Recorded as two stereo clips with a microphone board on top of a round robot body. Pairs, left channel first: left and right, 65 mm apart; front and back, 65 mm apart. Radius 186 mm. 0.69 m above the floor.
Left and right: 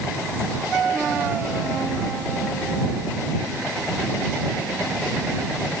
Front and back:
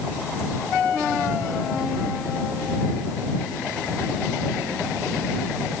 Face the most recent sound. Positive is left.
No sound to turn to.